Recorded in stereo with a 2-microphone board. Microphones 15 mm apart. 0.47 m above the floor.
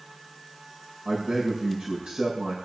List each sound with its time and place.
1.1 s a man speaking: 70° right (ahead or behind), 6 m